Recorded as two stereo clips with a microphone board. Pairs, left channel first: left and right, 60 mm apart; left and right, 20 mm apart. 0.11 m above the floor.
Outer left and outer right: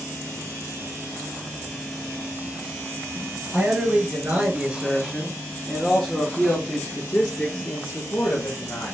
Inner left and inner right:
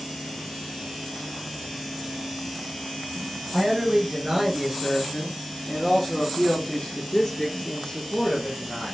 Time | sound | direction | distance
3.5 | a man speaking | 25° right (ahead or behind) | 2.5 m